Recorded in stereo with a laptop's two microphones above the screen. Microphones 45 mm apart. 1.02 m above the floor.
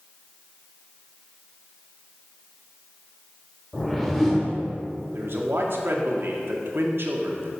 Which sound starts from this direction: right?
A man speaking, at 5.1 s.